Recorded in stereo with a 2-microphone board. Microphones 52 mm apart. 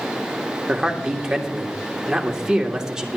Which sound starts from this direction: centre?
A man speaking, at 0.7 s.